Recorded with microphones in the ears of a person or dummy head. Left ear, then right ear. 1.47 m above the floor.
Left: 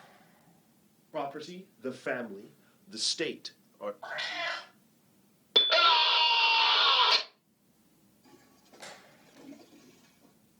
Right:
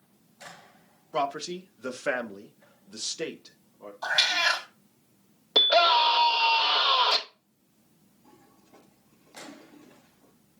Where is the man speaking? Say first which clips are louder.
Right 7 dB; 30° right (ahead or behind), 1.4 m; by 3.9 s 50° left (ahead or behind), 0.7 m.